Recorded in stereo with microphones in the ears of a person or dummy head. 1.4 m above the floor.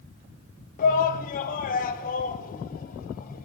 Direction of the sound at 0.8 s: 50° left (ahead or behind).